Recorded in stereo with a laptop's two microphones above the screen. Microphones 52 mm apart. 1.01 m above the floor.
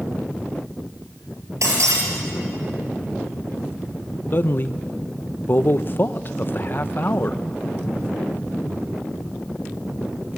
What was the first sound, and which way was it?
Breaking glass, 75° right (ahead or behind).